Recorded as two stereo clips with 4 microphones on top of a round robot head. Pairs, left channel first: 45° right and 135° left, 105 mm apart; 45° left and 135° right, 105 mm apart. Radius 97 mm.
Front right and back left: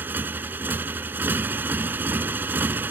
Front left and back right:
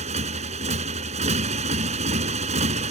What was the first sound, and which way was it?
A motorcycle, 155° right.